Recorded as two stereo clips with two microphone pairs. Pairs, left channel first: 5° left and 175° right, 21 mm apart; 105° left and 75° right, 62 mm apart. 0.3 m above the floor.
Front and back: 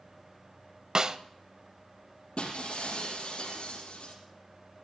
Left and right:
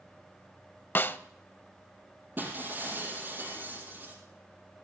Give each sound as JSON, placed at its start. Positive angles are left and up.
{"t": 0.9, "sound": "a snare drum", "azimuth_deg": 145, "distance_m": 0.6}
{"t": 2.4, "sound": "breaking glass", "azimuth_deg": -20, "distance_m": 4.5}